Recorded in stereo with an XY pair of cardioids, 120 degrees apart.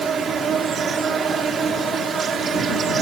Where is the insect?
45° right.